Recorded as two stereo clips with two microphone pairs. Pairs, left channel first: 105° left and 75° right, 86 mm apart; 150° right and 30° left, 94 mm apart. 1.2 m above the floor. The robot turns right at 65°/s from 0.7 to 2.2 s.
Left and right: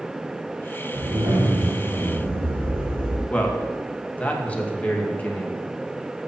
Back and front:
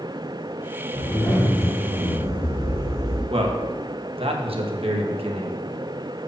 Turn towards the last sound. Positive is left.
turn(degrees=30)